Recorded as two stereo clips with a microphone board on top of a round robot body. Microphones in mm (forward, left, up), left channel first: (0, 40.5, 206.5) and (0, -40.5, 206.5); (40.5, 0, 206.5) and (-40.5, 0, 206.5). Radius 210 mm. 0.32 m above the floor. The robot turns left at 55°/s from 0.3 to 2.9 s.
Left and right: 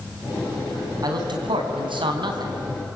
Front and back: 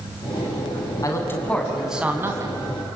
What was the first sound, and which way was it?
A man speaking, 50° right.